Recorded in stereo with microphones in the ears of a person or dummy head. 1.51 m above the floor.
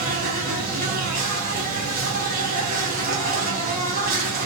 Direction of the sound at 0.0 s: 45° right (ahead or behind).